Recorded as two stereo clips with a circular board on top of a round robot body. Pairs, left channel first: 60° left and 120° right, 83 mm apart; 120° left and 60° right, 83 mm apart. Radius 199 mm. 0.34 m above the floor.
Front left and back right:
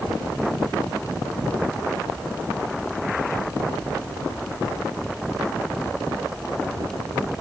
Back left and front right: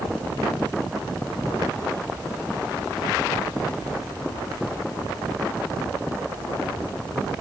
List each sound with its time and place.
Only background noise.